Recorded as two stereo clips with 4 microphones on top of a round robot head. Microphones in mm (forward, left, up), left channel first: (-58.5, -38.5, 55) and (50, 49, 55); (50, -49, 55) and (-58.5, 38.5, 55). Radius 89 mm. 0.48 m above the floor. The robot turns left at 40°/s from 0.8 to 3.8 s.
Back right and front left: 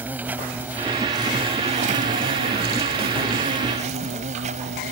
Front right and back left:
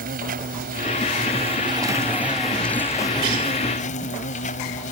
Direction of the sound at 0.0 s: 115° left.